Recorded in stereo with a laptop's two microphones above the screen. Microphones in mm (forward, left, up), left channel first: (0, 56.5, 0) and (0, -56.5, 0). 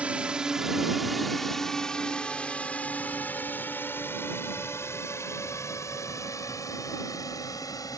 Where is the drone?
10° right (ahead or behind); by 8.0 s 30° left (ahead or behind).